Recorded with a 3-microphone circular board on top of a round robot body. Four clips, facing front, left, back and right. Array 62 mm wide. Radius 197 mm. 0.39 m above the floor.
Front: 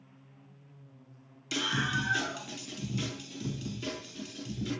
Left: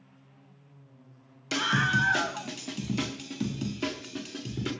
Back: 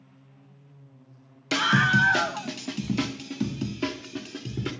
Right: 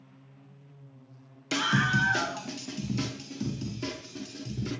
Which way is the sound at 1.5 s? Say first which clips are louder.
Even, back 10 dB; straight behind.